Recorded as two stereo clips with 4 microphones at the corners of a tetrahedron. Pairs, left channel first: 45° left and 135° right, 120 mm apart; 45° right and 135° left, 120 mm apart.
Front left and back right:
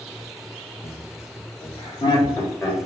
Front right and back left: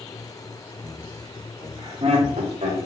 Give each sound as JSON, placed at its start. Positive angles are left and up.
{"t": 0.8, "sound": "laughter", "azimuth_deg": 55, "distance_m": 1.3}